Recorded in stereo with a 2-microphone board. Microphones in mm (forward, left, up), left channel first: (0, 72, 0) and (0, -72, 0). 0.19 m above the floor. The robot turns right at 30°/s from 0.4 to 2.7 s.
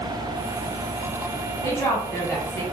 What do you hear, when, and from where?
1.6 s a woman speaking: 15° left (ahead or behind), 1.2 m; by 2.6 s 20° left (ahead or behind), 1.2 m